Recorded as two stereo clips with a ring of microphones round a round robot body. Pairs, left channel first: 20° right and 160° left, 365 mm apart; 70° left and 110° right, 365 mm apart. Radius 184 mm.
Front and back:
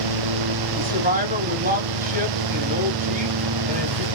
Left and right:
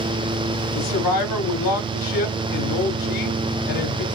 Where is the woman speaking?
90° left, 1.9 m.